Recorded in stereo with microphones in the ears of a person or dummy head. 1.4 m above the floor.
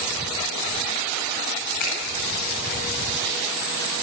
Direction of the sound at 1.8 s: 55° left (ahead or behind).